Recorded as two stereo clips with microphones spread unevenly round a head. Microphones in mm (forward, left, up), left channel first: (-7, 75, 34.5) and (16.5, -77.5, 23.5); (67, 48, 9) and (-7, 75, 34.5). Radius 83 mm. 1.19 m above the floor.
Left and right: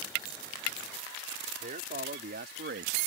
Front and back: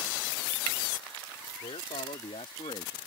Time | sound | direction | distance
1.6 | a man speaking | 40° right | ?